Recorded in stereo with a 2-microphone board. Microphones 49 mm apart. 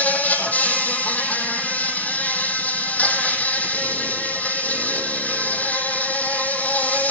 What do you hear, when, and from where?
0.0 s an insect: 30° left (ahead or behind), 1.4 m